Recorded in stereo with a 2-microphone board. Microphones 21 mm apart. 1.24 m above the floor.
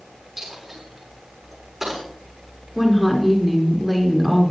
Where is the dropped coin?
20° right (ahead or behind), 6 m.